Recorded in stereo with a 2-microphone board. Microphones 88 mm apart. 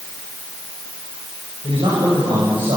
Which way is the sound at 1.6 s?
75° right (ahead or behind).